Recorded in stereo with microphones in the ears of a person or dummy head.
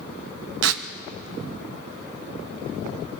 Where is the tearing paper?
80° right, 1.0 m.